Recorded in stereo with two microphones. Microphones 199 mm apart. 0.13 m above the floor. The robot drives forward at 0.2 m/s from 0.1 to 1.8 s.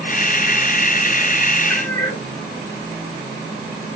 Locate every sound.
1.7 s a cat meowing: 10° left (ahead or behind), 1.1 m